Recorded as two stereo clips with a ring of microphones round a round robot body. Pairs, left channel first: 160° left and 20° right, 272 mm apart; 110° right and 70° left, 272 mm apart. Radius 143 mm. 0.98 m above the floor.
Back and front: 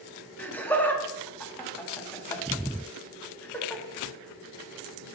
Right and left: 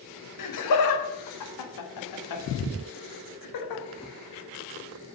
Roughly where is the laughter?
Behind right.